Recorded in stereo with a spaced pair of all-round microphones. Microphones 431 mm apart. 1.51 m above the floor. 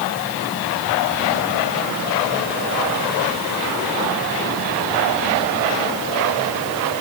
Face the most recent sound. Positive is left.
No sound to turn to.